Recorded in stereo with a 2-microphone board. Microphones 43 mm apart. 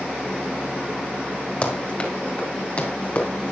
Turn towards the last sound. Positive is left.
turn(degrees=40)  # may be behind; listen again after turning